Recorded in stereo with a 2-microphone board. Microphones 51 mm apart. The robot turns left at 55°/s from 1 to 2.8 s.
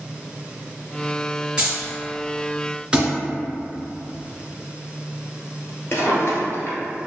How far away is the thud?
About 1.1 m.